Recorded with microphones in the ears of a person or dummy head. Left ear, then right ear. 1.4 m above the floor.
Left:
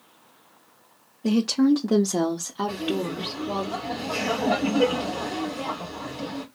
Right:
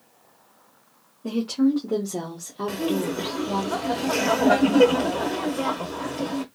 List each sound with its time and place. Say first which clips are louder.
1.2 s a woman speaking: left 2 dB; 70° left (ahead or behind), 0.8 m; by 3.7 s 10° right (ahead or behind), 0.9 m
2.7 s laughter: right 6 dB; 55° right (ahead or behind), 1.1 m